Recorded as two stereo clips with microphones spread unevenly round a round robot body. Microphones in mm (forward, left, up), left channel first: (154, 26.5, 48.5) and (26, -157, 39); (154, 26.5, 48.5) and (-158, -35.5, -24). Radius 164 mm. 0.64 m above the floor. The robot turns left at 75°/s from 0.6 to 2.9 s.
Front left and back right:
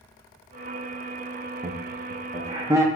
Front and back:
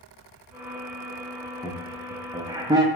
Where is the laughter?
95° right, 0.5 m; by 2.9 s 175° left, 0.5 m.